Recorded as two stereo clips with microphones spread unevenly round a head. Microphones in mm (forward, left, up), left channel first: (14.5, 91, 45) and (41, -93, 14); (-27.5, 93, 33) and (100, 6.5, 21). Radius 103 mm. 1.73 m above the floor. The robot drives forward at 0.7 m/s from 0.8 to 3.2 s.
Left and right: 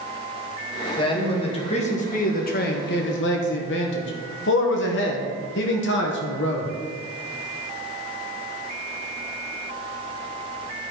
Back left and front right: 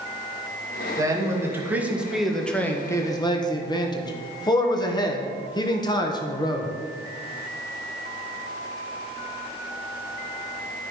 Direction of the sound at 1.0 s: 35° left.